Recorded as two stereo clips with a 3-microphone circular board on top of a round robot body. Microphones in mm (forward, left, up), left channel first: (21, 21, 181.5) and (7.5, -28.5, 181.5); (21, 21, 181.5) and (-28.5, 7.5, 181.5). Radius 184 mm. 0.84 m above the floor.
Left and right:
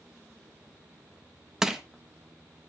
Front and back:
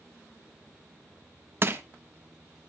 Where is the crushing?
175° left, 1.2 m.